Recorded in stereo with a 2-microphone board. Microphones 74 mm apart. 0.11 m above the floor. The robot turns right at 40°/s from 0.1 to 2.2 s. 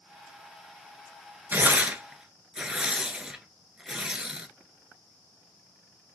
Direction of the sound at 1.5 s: 30° right (ahead or behind).